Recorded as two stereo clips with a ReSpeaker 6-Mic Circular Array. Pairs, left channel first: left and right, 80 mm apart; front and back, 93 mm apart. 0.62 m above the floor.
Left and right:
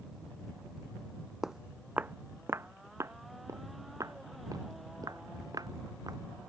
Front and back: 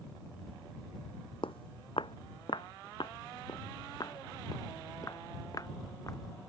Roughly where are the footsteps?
Ahead.